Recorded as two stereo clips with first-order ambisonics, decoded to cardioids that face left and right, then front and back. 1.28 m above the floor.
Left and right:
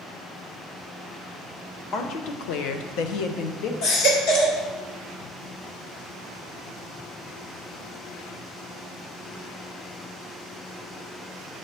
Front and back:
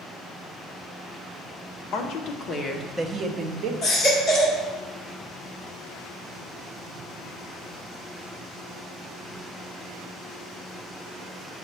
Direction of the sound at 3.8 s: 65° left.